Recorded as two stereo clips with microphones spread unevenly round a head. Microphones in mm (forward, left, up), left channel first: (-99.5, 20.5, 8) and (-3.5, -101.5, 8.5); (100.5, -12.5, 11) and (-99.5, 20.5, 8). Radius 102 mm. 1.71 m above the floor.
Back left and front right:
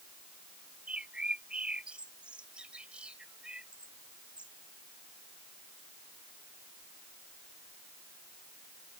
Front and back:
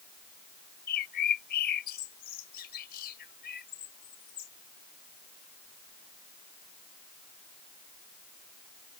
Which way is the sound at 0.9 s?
35° left.